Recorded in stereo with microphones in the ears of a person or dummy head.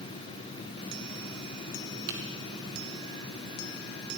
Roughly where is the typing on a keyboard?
Right.